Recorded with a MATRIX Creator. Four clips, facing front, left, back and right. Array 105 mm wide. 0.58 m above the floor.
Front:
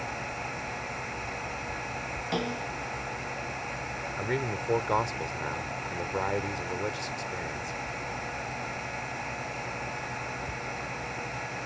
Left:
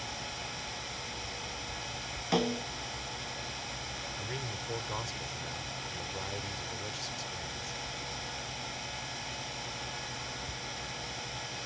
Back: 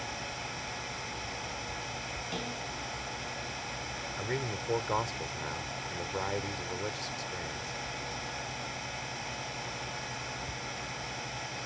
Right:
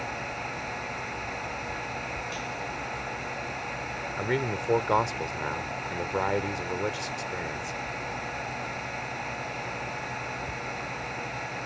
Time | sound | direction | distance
2.3 | a snare drum | 60° left | ?
4.2 | a man speaking | 70° right | ?